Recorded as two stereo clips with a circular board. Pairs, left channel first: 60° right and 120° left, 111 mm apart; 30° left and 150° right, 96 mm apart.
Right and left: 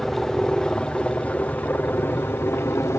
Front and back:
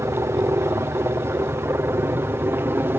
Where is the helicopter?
145° right; by 3.0 s 105° right.